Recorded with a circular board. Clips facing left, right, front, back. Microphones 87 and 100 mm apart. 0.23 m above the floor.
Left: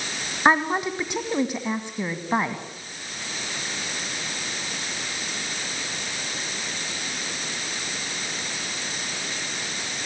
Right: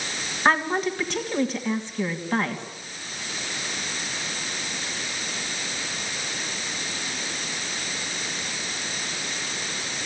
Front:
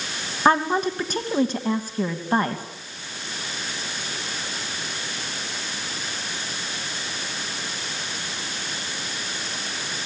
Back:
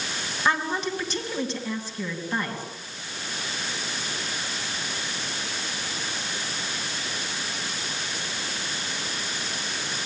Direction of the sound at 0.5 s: 20° left.